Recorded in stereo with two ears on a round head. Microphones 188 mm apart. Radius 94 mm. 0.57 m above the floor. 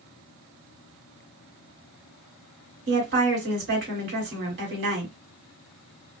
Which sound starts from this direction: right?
A woman speaking, at 2.9 s.